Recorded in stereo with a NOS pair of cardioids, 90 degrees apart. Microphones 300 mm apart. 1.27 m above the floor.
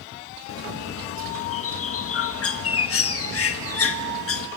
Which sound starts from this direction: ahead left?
A bird, at 0.5 s.